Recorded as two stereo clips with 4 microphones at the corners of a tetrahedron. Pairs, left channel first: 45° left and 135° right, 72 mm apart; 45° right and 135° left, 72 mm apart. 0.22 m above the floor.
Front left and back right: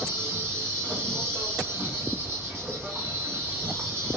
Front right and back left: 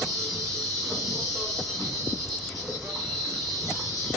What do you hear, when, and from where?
0.0 s an insect: 140° right, 2 m